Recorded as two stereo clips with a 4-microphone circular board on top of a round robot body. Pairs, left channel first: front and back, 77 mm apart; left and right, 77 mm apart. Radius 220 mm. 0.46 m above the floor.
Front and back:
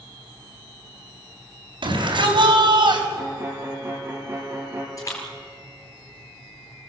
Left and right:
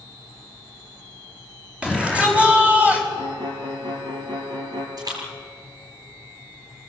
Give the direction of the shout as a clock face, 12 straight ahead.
6 o'clock.